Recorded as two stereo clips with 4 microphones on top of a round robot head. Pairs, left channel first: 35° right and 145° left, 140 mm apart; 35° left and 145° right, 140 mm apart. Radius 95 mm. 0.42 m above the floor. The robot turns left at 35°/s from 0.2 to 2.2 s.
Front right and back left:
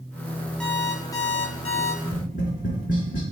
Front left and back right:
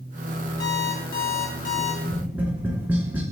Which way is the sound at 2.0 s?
60° right.